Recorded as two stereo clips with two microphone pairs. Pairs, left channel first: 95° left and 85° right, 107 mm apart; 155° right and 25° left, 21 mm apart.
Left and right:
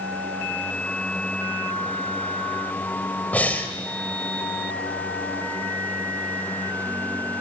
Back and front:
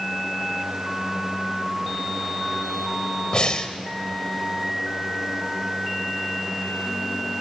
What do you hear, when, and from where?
3.3 s breathing: 170° left, 1.9 m